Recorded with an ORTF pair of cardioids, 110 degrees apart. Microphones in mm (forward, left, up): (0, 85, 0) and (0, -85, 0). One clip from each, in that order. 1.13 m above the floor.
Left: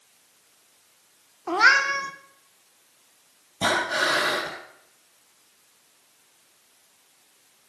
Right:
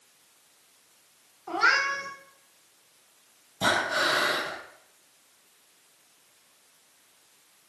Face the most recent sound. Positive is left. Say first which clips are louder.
# left 2 dB
turn(degrees=15)